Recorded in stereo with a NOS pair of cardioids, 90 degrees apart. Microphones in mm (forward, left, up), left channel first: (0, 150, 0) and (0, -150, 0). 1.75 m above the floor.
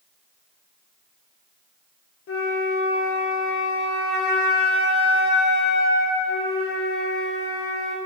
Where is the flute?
50° left, 1.6 m.